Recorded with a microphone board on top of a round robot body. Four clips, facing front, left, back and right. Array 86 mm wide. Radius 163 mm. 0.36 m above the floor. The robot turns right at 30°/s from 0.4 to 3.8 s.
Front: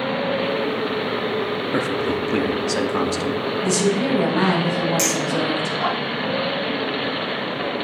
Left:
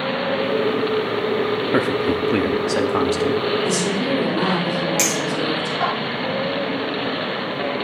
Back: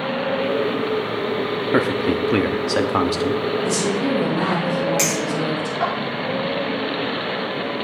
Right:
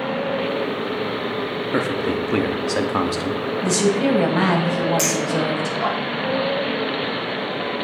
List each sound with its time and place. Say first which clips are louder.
1.7 s a man speaking: left 1 dB, back 4 dB; 150° left, 0.8 m; by 3.4 s 155° right, 0.8 m
3.6 s a woman speaking: right 2 dB, front 1 dB; 70° right, 3 m; by 5.8 s 65° right, 3 m
5.0 s a clink: right 1 dB, even; 130° left, 5 m